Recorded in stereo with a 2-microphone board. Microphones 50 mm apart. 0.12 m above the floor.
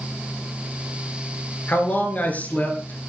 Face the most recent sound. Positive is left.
turn(degrees=35)  # may be behind; listen again after turning